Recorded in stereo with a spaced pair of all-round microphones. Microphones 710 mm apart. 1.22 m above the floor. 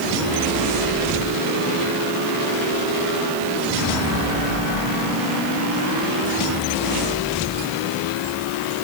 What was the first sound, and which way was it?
Only background noise.